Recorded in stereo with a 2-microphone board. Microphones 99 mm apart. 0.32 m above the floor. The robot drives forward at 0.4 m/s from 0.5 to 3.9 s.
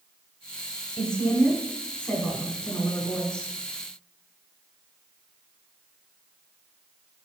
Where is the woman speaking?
10° left (ahead or behind), 2.0 m; by 3.5 s 5° left (ahead or behind), 3 m.